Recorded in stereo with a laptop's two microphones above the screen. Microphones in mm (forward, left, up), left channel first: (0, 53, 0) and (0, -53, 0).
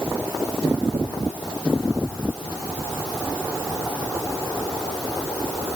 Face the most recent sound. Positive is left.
No sound to turn to.